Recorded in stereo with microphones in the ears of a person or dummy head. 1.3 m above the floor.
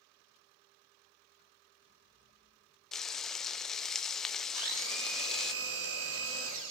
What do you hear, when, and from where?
2.9 s frying: centre (ahead or behind), 0.6 m
4.5 s a blender: 80° right, 2.5 m